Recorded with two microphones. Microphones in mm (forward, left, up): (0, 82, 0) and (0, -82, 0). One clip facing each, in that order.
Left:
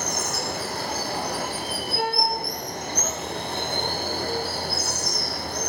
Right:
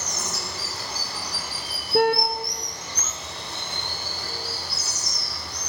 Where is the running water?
55° left (ahead or behind), 2.5 m.